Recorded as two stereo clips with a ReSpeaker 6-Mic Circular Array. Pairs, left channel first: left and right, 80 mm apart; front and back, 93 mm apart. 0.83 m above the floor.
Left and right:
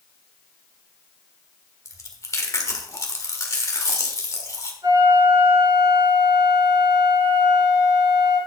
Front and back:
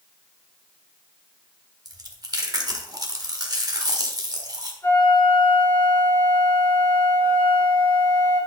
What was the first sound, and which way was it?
Chewing, 135° left.